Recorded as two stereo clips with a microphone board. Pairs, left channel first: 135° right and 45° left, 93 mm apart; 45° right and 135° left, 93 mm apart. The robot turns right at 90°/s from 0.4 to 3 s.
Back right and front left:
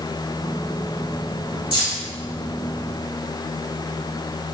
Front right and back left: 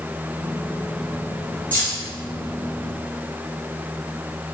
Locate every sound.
1.7 s keys jangling: 115° right, 1.9 m; by 2.0 s 85° right, 1.9 m